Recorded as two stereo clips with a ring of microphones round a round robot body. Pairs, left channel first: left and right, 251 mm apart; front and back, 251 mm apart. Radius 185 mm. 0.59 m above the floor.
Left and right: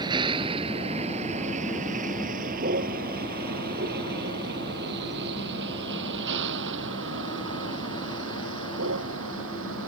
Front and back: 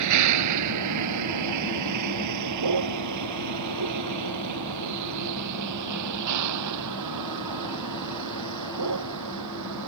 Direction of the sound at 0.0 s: 170° right.